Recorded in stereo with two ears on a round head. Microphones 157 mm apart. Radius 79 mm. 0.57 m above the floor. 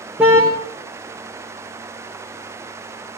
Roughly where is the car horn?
Centre.